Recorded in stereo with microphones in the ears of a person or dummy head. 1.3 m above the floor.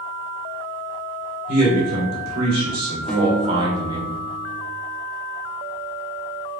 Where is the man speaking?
60° right (ahead or behind), 1.8 m; by 4.1 s 15° right (ahead or behind), 0.7 m.